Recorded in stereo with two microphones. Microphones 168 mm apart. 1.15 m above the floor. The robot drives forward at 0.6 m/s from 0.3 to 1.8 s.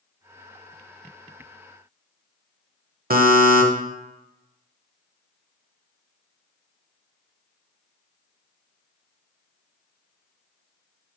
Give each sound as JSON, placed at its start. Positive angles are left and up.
{"t": 3.1, "sound": "a buzzer", "side_deg": -60, "distance_m": 1.0}